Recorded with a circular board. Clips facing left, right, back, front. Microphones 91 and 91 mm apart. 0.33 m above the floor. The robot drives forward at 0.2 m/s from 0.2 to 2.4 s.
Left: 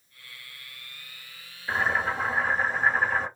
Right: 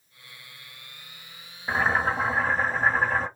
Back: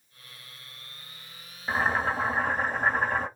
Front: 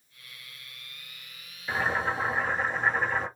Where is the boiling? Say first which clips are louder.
Right 2 dB, back 2 dB; 130° right, 1.2 m; by 3.3 s 135° right, 1.3 m.